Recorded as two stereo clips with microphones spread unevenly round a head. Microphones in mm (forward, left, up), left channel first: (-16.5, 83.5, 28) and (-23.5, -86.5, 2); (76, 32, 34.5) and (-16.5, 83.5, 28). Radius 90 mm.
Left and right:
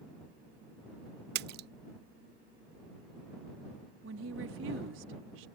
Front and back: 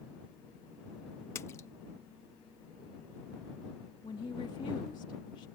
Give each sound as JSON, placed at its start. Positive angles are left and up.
{"t": 1.4, "sound": "a splash", "azimuth_deg": -95}
{"t": 4.0, "sound": "a woman speaking", "azimuth_deg": -95}